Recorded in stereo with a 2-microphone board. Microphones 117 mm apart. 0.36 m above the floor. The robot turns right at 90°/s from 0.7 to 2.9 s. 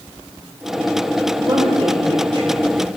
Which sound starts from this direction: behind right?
A woman speaking, at 1.4 s.